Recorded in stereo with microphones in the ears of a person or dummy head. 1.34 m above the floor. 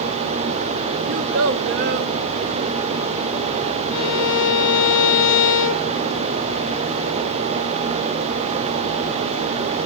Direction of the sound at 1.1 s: 70° right (ahead or behind).